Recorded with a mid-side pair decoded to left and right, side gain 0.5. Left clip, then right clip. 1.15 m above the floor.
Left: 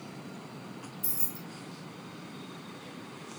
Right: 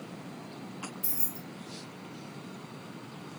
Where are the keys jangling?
Straight ahead, 0.8 m.